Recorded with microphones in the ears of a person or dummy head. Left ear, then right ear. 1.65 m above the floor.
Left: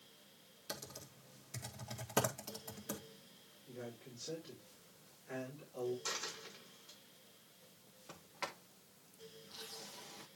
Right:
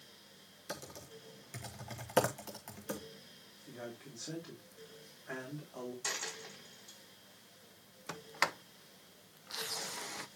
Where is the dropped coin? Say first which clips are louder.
Right 3 dB; 75° right (ahead or behind), 5.5 m.